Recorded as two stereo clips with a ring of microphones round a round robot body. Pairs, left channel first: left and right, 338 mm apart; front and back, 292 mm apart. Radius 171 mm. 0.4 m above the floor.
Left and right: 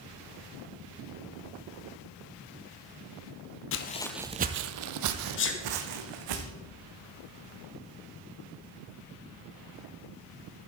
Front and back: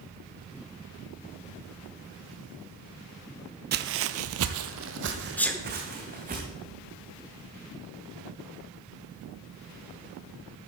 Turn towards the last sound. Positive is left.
turn(degrees=80)